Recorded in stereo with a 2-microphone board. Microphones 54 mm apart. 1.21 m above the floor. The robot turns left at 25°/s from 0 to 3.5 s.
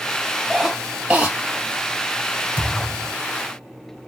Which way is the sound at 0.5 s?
5° right (ahead or behind).